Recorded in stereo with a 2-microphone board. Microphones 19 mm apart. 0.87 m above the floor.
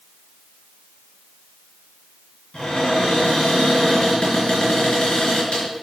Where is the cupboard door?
75° left (ahead or behind), 5 m.